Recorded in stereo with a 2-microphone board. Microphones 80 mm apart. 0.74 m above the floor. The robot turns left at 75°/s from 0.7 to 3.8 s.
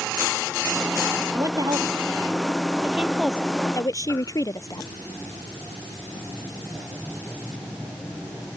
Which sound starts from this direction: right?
A woman speaking, at 1.3 s.